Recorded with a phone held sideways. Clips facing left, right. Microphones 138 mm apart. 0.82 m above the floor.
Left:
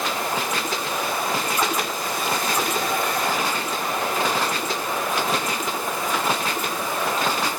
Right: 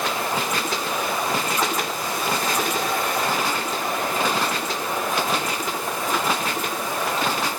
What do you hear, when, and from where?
Only background noise.